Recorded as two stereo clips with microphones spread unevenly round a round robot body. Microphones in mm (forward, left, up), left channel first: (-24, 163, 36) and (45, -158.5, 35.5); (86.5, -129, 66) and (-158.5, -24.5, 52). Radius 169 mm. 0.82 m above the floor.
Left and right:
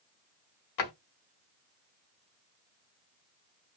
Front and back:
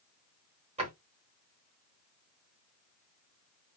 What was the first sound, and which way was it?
A drawer, 85° left.